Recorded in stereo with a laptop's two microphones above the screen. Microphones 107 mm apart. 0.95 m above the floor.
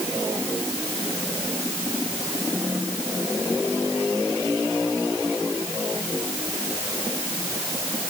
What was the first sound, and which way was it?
Only background noise.